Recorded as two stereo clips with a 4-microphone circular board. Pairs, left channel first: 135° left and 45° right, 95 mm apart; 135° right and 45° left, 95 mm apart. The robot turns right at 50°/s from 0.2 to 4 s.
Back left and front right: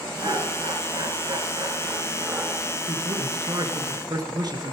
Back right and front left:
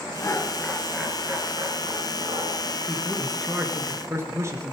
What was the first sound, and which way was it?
Laughter, 80° right.